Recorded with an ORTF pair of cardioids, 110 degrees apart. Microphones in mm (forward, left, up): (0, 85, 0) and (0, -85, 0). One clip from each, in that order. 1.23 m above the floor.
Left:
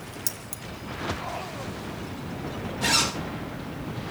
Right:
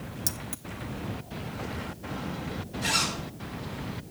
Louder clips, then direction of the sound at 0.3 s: Right 1 dB; 5° left.